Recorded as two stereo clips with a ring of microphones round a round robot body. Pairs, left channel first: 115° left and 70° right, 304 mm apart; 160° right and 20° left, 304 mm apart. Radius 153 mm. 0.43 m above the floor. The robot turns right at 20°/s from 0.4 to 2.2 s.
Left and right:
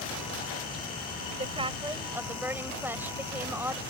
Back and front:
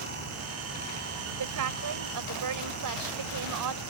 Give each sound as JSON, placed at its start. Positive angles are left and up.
{"t": 1.4, "sound": "a woman speaking", "azimuth_deg": 0}